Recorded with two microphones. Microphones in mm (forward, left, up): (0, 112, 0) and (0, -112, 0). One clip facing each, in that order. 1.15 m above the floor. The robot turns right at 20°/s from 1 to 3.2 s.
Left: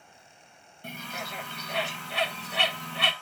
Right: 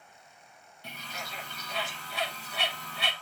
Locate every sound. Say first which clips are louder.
0.8 s a bird: left 5 dB; 50° left (ahead or behind), 1.3 m; by 3.1 s 70° left (ahead or behind), 1.3 m